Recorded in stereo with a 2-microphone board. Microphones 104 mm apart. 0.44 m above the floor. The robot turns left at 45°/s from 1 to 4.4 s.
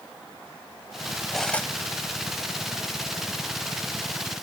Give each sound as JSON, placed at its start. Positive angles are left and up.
{"t": 1.3, "sound": "cutlery clinking", "side_deg": 0, "distance_m": 1.3}